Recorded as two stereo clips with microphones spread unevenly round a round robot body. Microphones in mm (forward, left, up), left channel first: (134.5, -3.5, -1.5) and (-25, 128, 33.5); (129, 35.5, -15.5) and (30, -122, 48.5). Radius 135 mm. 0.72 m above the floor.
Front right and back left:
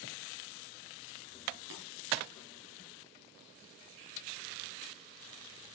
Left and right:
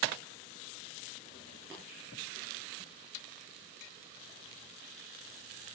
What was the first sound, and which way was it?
Tapping, 155° left.